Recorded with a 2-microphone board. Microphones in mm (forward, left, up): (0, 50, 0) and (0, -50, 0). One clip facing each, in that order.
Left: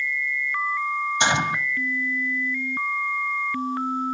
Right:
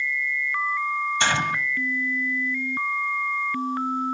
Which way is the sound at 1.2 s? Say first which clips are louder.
Left 3 dB; 20° left (ahead or behind).